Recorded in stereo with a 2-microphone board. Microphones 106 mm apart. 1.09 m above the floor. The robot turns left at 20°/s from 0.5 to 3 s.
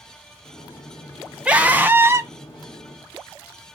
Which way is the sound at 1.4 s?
10° right (ahead or behind).